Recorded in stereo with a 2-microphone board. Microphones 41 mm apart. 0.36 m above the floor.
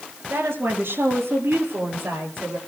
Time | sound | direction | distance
0.3 | a woman speaking | 55° right (ahead or behind) | 5.5 m